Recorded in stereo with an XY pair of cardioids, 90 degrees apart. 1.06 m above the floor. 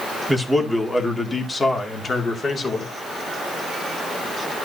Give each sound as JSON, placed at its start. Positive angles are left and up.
{"t": 0.3, "sound": "a man speaking", "azimuth_deg": 5, "distance_m": 2.5}